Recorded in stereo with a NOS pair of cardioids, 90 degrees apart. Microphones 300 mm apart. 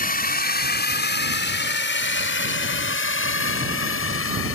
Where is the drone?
30° left; by 4.6 s 45° left.